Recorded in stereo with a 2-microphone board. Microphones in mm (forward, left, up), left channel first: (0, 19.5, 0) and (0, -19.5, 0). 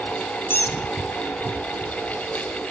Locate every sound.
0.5 s a squeak: 70° left (ahead or behind), 1.2 m